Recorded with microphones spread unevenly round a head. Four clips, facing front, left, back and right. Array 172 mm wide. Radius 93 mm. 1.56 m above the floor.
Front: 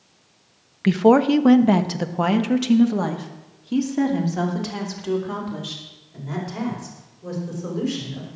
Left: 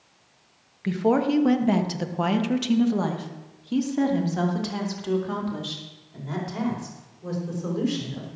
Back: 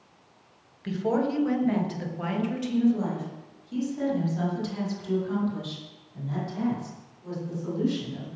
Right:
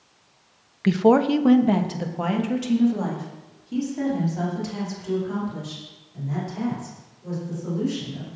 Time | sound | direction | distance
0.8 | a woman speaking | 25° right | 1.1 m